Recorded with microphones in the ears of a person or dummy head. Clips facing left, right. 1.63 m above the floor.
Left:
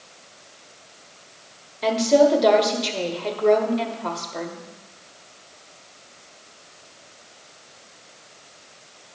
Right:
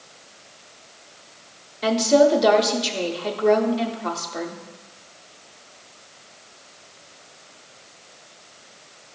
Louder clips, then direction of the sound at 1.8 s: Even; 5° right (ahead or behind).